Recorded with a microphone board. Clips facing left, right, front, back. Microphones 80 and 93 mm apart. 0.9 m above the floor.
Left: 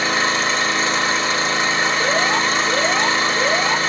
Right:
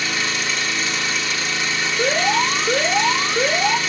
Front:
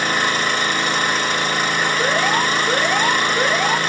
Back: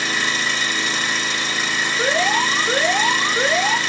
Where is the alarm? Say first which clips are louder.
Right 4 dB, back 2 dB; 85° right, 2.5 m.